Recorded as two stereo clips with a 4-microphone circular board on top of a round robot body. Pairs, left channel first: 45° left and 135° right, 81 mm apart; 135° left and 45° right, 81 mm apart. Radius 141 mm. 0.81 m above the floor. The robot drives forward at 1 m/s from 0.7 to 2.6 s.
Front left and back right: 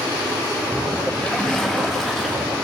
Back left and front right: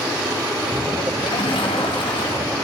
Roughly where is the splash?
Behind left.